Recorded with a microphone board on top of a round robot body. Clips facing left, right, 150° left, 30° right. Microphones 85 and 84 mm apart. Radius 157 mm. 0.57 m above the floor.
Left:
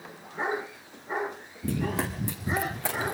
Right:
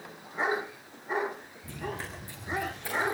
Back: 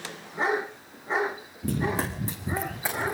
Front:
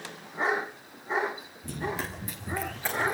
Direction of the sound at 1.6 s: 110° left.